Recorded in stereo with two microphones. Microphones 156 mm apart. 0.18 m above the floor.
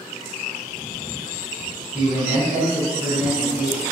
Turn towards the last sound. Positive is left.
turn(degrees=-15)  # may be behind; listen again after turning